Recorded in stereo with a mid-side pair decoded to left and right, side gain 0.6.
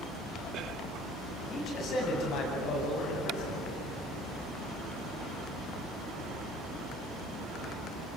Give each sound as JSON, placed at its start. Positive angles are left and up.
{"t": 1.5, "sound": "a man speaking", "azimuth_deg": 50, "distance_m": 9.0}